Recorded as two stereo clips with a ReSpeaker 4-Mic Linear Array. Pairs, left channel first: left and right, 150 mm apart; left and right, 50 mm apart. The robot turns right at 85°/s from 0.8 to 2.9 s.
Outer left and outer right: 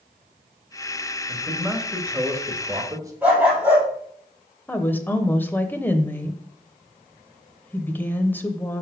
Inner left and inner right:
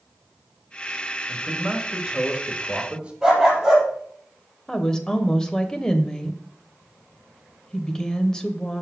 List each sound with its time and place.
1.3 s a man speaking: 10° left (ahead or behind), 1.5 m; by 3.1 s 20° right (ahead or behind), 1.5 m
3.2 s a dog barking: 10° right (ahead or behind), 3.5 m
4.7 s a woman speaking: 10° left (ahead or behind), 0.9 m